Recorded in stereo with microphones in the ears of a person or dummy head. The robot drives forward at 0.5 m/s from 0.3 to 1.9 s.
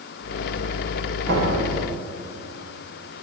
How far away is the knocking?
About 7.5 m.